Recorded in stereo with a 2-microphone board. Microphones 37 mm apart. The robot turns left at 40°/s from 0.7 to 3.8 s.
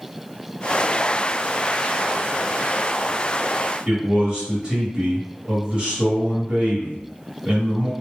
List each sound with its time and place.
3.9 s a man speaking: 25° right (ahead or behind), 1.3 m